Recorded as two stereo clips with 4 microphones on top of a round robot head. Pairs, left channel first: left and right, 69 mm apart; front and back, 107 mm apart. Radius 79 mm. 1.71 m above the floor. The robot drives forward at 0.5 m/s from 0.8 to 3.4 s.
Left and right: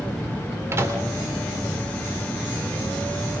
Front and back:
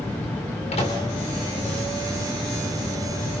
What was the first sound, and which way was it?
A microwave, 40° right.